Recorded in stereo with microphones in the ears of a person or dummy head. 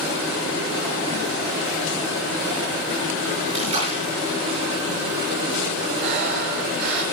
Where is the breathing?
55° right (ahead or behind), 2.5 m.